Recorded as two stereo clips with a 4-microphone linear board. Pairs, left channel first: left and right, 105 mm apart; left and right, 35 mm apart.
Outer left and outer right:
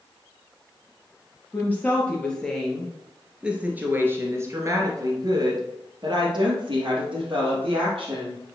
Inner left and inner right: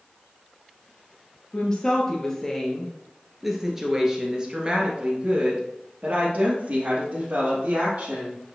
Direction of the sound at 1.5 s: 20° left (ahead or behind).